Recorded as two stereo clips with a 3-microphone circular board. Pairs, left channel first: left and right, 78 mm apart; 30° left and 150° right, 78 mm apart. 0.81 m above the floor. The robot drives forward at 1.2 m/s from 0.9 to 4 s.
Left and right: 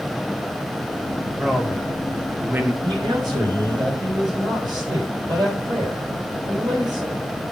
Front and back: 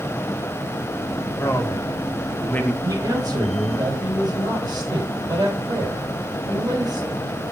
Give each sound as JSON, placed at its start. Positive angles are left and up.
{"t": 1.3, "sound": "a man speaking", "azimuth_deg": -15, "distance_m": 2.5}
{"t": 2.8, "sound": "a man speaking", "azimuth_deg": -110, "distance_m": 6.0}